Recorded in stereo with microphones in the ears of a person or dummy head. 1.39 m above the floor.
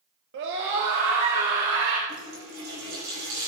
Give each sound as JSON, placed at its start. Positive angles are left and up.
{"t": 0.3, "sound": "a scream", "side_deg": -65, "distance_m": 2.5}
{"t": 2.1, "sound": "a running tap", "side_deg": -60, "distance_m": 5.5}